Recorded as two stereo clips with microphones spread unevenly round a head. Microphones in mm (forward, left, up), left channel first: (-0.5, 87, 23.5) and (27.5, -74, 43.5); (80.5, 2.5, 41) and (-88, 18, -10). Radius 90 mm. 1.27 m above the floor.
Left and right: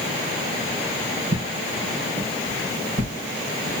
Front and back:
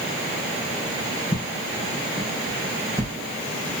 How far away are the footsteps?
About 4 m.